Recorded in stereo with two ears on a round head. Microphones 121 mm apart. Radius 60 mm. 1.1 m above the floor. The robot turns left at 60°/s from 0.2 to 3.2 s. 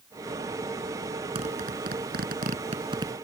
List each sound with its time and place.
1.4 s a zipper: 45° right (ahead or behind); by 3.1 s 25° right (ahead or behind)